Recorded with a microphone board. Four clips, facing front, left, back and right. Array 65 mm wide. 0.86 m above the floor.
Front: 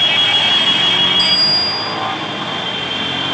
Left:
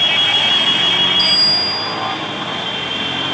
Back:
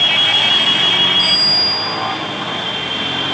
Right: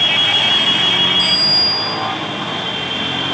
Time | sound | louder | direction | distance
1.2 | a bicycle bell | even, even | 15° left | 6 m